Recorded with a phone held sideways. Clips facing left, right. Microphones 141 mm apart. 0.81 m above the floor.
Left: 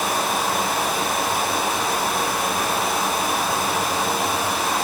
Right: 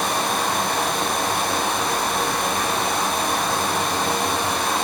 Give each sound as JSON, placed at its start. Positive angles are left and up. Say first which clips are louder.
{"t": 0.0, "sound": "running water", "louder": "even", "side_deg": 5, "distance_m": 1.7}